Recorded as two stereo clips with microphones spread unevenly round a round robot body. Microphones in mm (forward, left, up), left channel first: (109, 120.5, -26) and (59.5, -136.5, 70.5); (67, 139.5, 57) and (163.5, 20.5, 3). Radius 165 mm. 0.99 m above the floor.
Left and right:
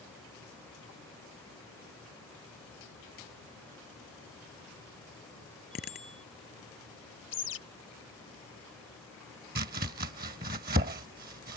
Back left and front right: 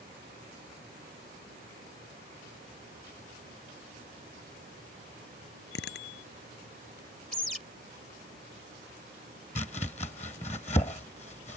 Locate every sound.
5.7 s a bicycle bell: 140° left
7.3 s a bird: 40° left
9.6 s chopping: 165° right